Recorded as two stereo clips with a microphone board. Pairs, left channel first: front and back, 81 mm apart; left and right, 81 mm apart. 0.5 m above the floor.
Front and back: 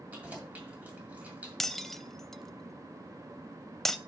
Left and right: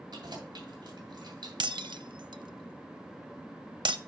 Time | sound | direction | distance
0.1 | keys jangling | 110° right | 2.5 m
1.6 | breaking glass | 85° right | 0.5 m